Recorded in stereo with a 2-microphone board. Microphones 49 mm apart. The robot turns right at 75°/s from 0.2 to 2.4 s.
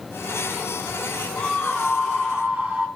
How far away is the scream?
About 2 m.